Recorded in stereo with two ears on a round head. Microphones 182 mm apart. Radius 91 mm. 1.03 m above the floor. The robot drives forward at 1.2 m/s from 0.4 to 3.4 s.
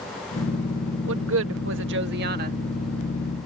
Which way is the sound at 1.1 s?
65° right (ahead or behind).